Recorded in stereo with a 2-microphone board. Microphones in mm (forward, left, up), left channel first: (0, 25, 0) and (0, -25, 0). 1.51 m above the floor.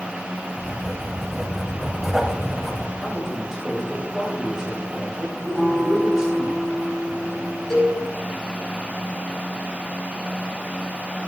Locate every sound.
0.6 s writing: 5° right (ahead or behind), 2.5 m
3.0 s a man speaking: 10° right (ahead or behind), 7 m
5.5 s a guitar: 10° right (ahead or behind), 7 m
7.7 s a cowbell: 10° left (ahead or behind), 7 m